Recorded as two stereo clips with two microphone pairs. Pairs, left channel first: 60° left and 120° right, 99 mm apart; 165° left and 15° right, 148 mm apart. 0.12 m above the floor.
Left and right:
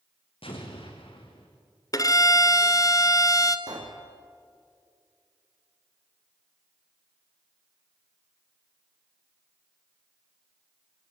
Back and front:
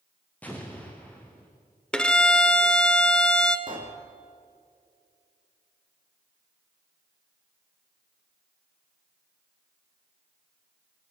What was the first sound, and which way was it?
An explosion, 85° left.